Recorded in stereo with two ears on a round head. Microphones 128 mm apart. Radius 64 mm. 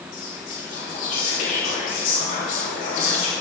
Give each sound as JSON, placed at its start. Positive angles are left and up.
{"t": 0.1, "sound": "whispering", "side_deg": 60, "distance_m": 3.0}